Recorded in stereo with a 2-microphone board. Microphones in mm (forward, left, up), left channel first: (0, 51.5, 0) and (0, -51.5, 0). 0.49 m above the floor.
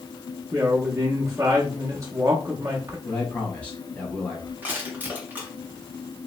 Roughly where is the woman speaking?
Right.